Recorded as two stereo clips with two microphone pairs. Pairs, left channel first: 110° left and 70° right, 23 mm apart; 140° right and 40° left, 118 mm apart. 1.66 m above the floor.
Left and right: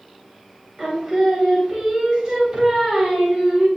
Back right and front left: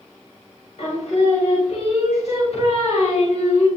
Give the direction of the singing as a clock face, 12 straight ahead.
4 o'clock.